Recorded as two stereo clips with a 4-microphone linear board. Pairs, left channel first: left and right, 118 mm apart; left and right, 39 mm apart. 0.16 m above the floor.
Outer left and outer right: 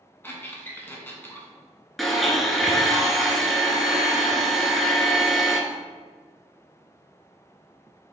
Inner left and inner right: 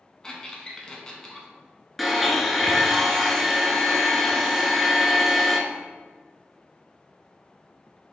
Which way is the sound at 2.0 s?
Centre (ahead or behind).